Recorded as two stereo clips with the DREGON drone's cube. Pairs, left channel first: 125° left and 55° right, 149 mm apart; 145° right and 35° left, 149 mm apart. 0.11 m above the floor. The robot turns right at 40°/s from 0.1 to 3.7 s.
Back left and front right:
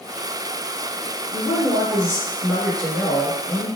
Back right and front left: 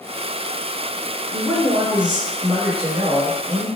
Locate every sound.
1.3 s a woman speaking: 10° right, 1.7 m; by 3.7 s 85° left, 1.7 m